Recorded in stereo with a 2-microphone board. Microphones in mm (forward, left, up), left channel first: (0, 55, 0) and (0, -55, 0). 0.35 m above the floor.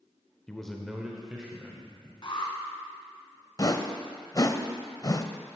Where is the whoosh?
35° left (ahead or behind), 0.6 m.